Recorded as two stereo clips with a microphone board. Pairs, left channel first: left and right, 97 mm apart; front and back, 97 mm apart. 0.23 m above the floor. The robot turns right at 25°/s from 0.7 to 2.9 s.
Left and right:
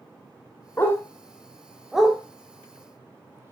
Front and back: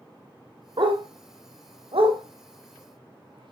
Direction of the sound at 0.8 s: 155° left.